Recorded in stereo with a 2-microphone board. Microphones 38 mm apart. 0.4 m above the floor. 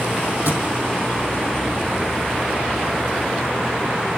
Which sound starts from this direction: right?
A thud, at 0.5 s.